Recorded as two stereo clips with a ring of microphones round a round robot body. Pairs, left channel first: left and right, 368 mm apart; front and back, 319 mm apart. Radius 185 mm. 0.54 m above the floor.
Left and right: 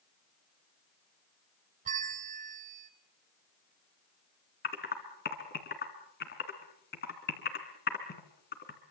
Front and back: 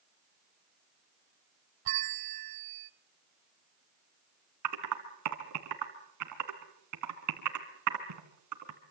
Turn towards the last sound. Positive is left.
turn(degrees=155)